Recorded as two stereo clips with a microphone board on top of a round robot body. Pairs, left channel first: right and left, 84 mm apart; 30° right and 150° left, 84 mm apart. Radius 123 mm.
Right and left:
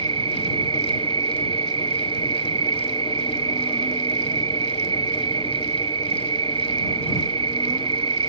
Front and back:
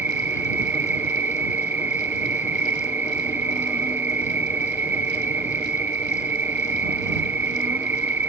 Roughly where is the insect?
Left.